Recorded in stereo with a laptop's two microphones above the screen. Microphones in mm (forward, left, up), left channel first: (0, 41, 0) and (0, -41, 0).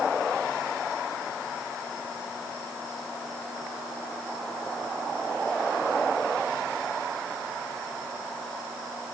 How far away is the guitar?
I don't hear a guitar.